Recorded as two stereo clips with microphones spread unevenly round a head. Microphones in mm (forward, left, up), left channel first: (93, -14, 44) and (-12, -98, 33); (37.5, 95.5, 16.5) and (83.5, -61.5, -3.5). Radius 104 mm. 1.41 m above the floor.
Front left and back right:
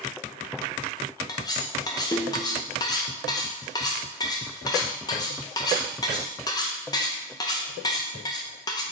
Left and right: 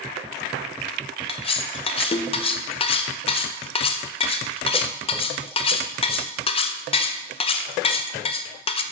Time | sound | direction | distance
1.3 | cutlery clinking | 90° left | 0.5 m